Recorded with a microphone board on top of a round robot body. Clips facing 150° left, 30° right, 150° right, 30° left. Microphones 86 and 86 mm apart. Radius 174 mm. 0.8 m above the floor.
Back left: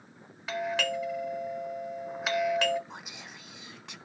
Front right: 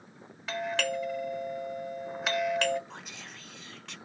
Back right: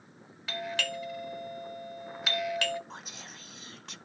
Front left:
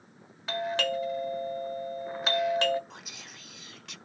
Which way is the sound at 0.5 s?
65° left.